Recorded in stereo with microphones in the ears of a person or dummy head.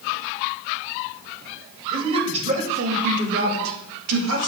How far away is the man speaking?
About 3 m.